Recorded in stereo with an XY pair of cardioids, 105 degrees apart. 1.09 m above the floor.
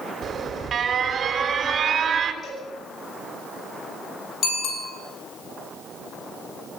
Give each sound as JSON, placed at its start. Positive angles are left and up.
{"t": 0.2, "sound": "an alarm", "azimuth_deg": -50, "distance_m": 4.0}
{"t": 2.4, "sound": "a cowbell", "azimuth_deg": 50, "distance_m": 9.5}
{"t": 4.4, "sound": "a bicycle bell", "azimuth_deg": 65, "distance_m": 7.5}